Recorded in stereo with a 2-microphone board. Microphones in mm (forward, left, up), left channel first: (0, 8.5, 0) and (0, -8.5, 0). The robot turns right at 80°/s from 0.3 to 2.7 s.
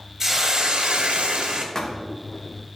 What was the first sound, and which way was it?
A hiss, 155° right.